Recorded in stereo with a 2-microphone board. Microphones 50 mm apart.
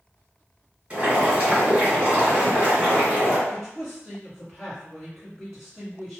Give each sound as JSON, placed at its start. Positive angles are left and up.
{"t": 0.9, "sound": "boiling", "side_deg": -20, "distance_m": 1.7}
{"t": 3.5, "sound": "a man speaking", "side_deg": -5, "distance_m": 1.5}